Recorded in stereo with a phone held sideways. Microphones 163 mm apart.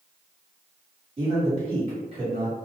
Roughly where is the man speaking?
Right.